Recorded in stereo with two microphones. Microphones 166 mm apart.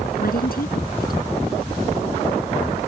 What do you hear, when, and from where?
0.2 s a woman speaking: 65° left (ahead or behind)